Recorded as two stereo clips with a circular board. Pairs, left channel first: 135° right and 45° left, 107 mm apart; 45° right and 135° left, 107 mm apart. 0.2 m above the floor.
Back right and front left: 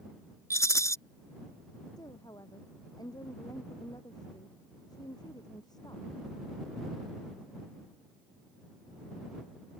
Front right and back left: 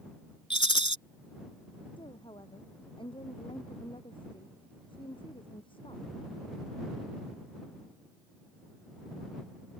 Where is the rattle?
75° right.